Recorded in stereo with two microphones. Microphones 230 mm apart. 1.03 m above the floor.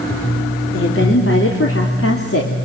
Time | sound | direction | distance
0.7 | a woman speaking | 60° left (ahead or behind) | 3.5 m